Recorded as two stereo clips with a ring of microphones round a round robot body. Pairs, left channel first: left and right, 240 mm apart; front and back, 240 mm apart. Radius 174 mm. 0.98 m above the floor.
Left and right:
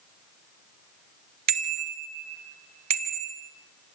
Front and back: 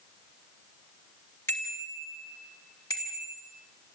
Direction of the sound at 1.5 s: 85° right.